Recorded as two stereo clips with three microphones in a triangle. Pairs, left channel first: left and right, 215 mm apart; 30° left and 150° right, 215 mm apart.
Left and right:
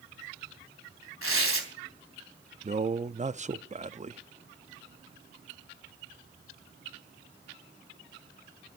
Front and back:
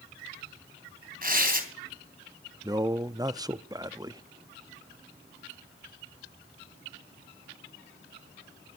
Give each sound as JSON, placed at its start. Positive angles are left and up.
{"t": 1.2, "sound": "tearing paper", "azimuth_deg": -100, "distance_m": 3.0}
{"t": 2.6, "sound": "a man speaking", "azimuth_deg": -90, "distance_m": 0.5}